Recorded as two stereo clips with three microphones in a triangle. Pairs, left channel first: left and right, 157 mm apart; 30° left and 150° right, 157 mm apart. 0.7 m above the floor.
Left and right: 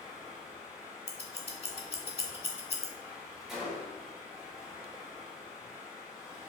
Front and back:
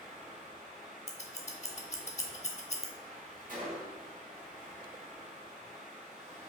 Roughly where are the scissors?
Ahead left.